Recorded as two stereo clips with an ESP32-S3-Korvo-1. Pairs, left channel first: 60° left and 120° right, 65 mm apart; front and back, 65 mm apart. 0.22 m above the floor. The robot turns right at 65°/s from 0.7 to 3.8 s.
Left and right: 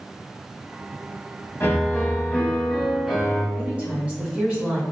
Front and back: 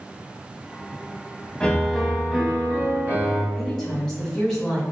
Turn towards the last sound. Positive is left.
turn(degrees=-75)